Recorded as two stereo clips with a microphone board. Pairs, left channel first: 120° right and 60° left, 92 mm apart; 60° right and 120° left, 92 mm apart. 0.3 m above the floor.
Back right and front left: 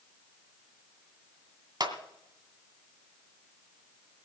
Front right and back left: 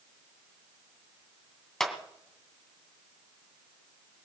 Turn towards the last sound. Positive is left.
turn(degrees=25)